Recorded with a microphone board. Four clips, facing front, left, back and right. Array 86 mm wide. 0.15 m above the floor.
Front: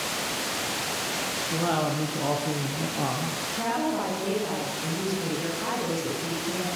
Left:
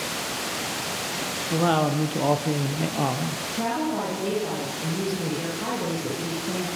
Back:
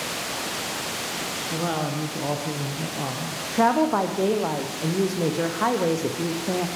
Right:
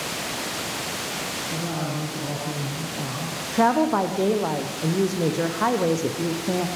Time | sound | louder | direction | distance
1.5 | a woman speaking | left 9 dB, front 1 dB | 95° left | 4.5 m
3.5 | a woman speaking | right 8 dB, back 8 dB | 130° right | 5.5 m